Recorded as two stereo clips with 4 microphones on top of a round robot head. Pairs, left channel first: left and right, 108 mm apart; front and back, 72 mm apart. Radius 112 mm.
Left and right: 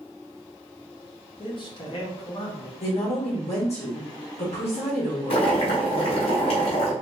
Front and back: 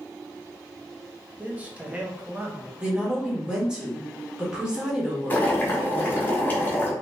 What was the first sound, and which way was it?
A man speaking, 115° left.